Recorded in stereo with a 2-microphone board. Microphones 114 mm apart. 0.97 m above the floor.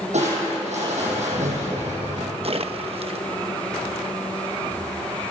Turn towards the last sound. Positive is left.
turn(degrees=-60)  # may be behind; listen again after turning